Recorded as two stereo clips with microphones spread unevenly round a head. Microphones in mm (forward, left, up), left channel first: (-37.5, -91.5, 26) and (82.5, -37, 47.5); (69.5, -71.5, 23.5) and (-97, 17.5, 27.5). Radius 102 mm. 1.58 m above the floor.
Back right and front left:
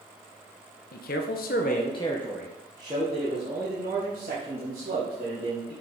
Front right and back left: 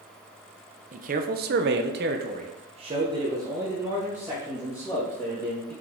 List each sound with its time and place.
0.9 s a man speaking: 165° right, 0.8 m; by 5.7 s 65° left, 2.5 m